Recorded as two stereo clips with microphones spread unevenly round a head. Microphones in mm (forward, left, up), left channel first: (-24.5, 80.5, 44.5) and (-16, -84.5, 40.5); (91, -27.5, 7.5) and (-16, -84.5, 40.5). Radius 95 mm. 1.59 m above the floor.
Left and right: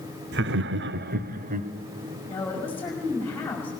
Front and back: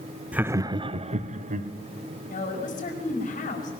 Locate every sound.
0.3 s laughter: 70° right, 0.9 m; by 1.7 s 130° right, 1.4 m
2.3 s a woman speaking: 15° left, 5.5 m